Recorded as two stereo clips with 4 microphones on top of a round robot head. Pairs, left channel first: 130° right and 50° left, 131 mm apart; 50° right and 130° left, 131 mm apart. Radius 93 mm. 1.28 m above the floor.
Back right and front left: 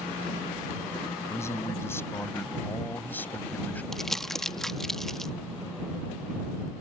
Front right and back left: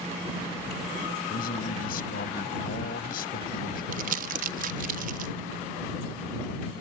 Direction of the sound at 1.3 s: 60° right.